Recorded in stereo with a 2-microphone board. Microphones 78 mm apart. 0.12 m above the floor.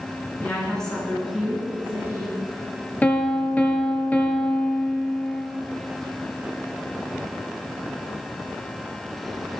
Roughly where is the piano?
Centre.